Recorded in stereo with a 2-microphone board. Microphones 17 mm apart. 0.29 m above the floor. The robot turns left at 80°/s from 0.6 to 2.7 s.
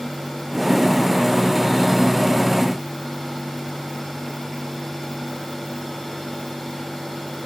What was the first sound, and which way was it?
Only background noise.